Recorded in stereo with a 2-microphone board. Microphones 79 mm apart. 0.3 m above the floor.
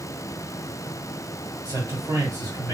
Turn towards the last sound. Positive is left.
turn(degrees=-55)  # may be behind; listen again after turning